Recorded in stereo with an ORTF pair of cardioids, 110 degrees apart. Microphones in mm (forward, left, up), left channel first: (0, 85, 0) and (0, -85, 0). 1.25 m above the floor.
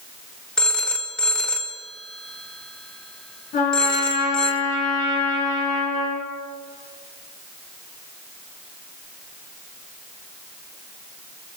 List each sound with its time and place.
0.6 s a phone ringing: 5° left, 0.6 m
3.5 s a trumpet: 60° left, 3.5 m